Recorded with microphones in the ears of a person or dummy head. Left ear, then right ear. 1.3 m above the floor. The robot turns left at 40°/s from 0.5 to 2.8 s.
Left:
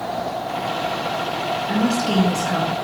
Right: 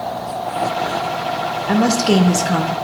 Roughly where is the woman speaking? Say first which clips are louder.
Right 8 dB; right.